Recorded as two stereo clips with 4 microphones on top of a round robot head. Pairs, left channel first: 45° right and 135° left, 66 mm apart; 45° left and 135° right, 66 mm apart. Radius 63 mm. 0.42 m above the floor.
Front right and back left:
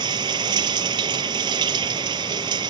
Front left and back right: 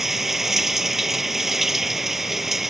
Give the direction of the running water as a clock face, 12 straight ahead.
7 o'clock.